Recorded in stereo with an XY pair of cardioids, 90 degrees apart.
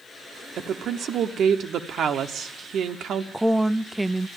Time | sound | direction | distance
0.6 | a woman speaking | 70° right | 0.9 m
3.3 | a woman speaking | 5° right | 0.5 m